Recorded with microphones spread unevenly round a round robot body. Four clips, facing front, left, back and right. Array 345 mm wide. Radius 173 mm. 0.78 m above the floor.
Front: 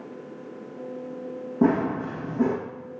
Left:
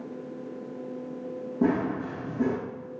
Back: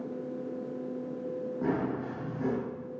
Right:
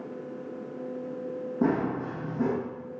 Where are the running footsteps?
Straight ahead, 2 m.